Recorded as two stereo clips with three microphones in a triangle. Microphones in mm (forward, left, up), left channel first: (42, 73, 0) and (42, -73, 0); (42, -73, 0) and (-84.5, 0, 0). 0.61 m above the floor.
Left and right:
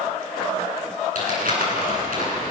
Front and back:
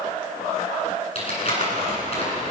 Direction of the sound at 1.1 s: 75° right.